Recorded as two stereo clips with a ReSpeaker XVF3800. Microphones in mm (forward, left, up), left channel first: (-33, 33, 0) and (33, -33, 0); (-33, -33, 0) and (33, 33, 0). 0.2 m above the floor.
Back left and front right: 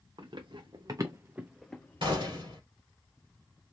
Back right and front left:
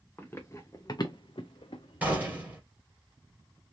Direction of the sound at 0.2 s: 70° right.